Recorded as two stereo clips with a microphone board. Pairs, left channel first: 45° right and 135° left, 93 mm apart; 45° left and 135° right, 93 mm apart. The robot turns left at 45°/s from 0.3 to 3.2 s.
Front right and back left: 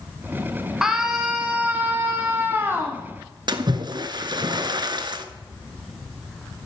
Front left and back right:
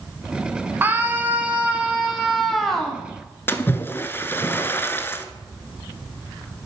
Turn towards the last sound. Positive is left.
turn(degrees=110)